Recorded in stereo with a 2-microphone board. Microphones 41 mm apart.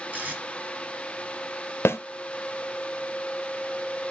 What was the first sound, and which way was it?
Tape being pulled, 40° right (ahead or behind).